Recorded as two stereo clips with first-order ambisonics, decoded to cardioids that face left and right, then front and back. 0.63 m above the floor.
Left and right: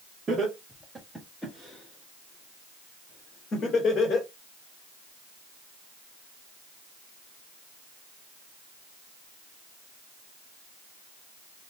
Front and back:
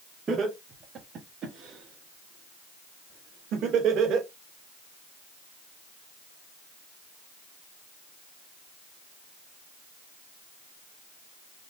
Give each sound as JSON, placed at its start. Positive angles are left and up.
{"t": 0.3, "sound": "laughter", "azimuth_deg": -140, "distance_m": 1.3}